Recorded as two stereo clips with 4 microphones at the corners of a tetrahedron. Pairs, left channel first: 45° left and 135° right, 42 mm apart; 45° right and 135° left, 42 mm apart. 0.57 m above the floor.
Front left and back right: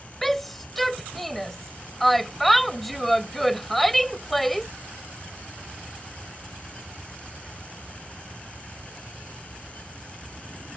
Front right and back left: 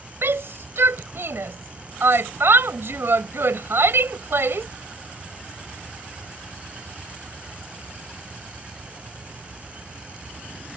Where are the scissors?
I don't hear scissors.